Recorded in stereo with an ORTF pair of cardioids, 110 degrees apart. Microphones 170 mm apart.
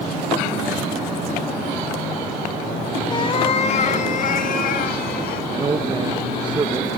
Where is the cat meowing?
25° left, 3 m; by 5.4 s 65° left, 5 m.